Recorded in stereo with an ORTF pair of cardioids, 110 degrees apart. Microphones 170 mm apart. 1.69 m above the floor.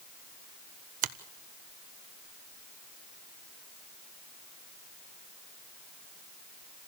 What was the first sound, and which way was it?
A finger snap, 55° right.